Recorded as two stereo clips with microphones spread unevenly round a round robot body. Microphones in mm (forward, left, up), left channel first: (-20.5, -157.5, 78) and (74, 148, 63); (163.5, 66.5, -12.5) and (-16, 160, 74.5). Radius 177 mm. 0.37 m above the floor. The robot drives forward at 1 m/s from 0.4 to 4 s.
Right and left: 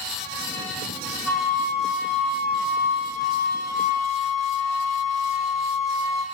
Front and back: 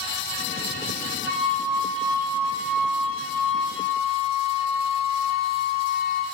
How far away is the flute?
About 5.5 m.